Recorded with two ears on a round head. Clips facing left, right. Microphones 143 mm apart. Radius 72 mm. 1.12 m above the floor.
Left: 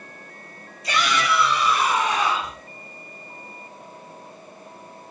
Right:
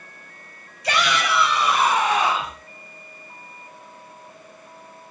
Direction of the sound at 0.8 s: 55° right (ahead or behind).